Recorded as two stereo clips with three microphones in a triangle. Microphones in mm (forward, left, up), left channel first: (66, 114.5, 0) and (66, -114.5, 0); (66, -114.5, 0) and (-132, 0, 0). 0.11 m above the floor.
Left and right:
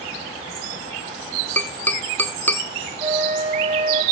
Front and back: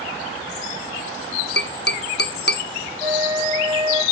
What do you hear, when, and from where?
1.6 s tapping: 5° left, 1.2 m
3.0 s a flute: 155° right, 6 m